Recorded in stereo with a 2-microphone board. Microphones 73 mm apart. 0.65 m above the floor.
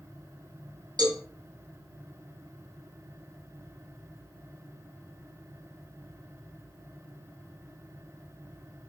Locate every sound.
1.0 s a cowbell: 70° right (ahead or behind), 2 m